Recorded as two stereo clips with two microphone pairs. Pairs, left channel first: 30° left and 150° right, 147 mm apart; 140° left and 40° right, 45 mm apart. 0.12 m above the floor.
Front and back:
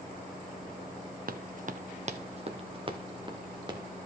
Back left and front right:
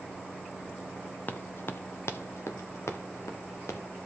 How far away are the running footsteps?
About 0.9 m.